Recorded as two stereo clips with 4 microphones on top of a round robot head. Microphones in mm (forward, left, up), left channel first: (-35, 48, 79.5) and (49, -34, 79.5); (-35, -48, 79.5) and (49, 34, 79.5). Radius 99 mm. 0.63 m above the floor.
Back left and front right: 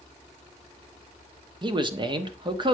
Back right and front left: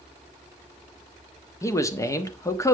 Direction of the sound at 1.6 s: 80° right.